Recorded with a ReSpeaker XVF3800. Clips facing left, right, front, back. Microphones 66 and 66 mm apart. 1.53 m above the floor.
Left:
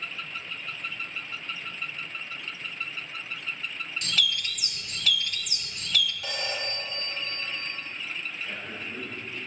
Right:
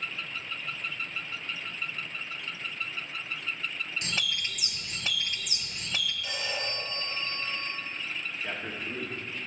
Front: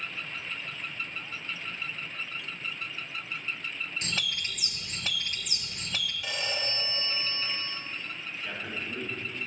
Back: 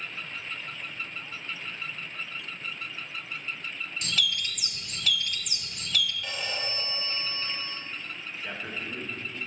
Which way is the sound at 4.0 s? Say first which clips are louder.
Left 5 dB, back 5 dB; 40° right.